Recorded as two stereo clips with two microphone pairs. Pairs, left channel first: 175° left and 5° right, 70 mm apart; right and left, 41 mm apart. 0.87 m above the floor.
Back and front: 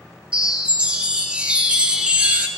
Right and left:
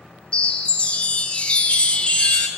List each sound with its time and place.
0.3 s a chime: 65° right, 0.5 m